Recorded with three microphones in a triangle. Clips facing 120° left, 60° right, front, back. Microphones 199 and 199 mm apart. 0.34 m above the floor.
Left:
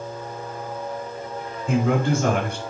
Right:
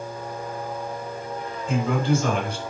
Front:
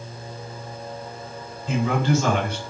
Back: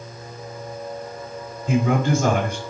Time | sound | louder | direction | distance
1.7 | a man speaking | left 2 dB, back 2 dB | 145° left | 4 m